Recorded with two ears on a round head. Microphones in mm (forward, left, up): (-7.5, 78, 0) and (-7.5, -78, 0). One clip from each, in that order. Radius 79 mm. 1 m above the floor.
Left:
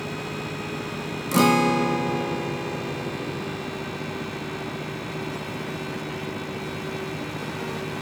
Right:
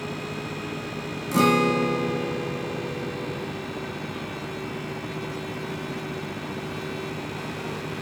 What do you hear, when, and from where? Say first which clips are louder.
1.3 s a guitar: left 1 dB; 15° left (ahead or behind), 1.1 m